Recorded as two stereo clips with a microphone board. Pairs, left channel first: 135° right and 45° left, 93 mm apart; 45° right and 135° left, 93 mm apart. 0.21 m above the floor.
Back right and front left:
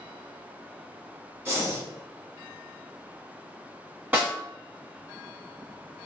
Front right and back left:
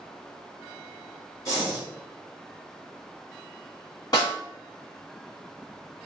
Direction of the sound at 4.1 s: 20° right.